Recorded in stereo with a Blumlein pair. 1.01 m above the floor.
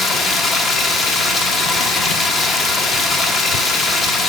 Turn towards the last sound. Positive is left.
turn(degrees=15)